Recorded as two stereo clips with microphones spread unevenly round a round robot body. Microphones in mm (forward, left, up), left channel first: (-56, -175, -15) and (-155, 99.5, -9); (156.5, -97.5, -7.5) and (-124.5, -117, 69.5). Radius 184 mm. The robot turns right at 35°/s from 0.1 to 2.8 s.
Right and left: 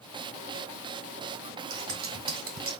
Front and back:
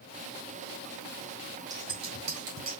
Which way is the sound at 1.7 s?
90° left.